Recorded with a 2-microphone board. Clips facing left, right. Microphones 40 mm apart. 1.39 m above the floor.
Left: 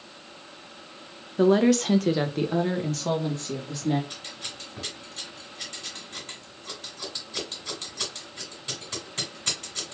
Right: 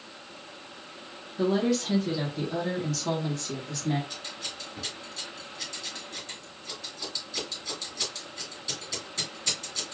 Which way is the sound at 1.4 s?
60° left (ahead or behind).